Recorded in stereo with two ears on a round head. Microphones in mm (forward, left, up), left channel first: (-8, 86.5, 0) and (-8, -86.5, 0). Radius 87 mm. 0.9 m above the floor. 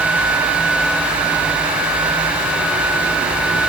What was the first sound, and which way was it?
Only background noise.